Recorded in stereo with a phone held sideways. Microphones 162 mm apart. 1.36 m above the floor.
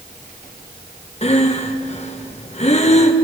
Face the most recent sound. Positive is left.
turn(degrees=45)  # may be behind; listen again after turning